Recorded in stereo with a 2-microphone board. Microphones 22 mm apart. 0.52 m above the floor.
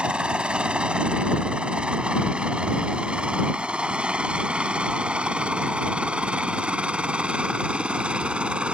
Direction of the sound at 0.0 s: 55° right (ahead or behind).